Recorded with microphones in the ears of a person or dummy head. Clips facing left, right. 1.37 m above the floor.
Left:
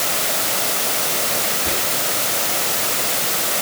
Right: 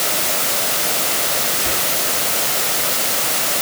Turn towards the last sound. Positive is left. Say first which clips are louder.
# left 1 dB
turn(degrees=-5)  # may be behind; listen again after turning